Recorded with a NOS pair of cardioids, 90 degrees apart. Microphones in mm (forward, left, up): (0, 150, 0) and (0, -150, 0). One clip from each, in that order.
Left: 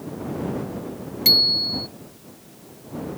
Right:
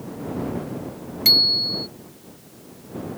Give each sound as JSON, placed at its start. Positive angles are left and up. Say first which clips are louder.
{"t": 1.2, "sound": "a bicycle bell", "louder": "right 1 dB", "azimuth_deg": -10}